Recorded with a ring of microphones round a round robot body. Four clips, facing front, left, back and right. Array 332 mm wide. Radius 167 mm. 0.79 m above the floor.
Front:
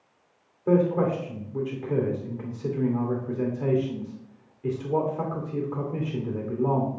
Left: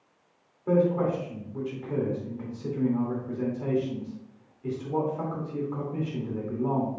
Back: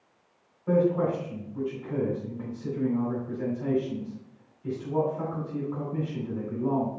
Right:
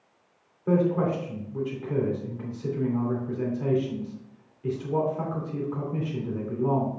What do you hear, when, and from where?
0.7 s a man speaking: 10° right, 2.5 m